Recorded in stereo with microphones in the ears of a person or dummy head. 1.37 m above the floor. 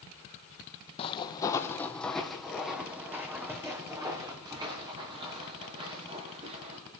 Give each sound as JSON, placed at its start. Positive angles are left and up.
{"t": 1.0, "sound": "footsteps", "side_deg": 35, "distance_m": 2.5}